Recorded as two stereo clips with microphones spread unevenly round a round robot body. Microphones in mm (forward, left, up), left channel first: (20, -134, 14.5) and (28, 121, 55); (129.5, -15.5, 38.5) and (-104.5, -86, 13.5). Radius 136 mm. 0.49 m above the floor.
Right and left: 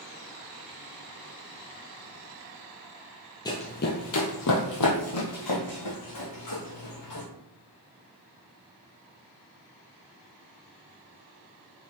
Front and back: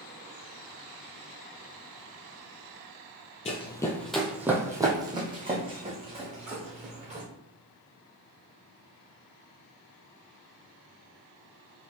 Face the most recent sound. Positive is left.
turn(degrees=-100)